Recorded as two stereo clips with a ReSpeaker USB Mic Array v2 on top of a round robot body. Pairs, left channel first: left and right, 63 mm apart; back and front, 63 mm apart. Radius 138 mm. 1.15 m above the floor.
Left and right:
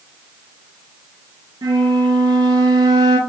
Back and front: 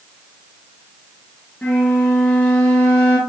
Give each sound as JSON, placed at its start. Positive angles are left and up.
{"t": 1.6, "sound": "a flute", "azimuth_deg": -115, "distance_m": 0.6}